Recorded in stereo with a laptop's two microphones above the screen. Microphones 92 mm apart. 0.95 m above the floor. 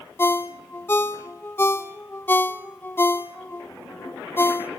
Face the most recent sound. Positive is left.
turn(degrees=25)  # may be behind; listen again after turning